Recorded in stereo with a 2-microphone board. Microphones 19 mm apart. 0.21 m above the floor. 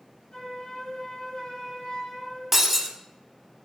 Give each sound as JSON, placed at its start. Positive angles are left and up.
{"t": 0.3, "sound": "a flute", "side_deg": 45, "distance_m": 3.0}
{"t": 2.5, "sound": "breaking glass", "side_deg": -15, "distance_m": 0.8}